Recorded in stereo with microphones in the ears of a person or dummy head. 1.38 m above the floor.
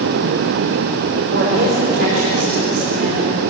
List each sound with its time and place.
1.3 s a woman speaking: 55° right (ahead or behind), 5 m; by 3.4 s 35° right (ahead or behind), 4 m